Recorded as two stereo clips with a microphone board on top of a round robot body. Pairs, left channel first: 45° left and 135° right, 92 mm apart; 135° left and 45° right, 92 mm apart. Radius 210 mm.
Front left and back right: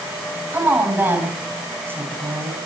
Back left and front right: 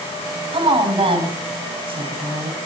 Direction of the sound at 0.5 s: 65° right.